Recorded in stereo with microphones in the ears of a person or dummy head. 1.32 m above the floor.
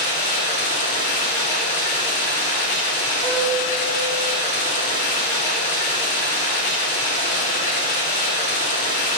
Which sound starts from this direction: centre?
A piano, at 3.2 s.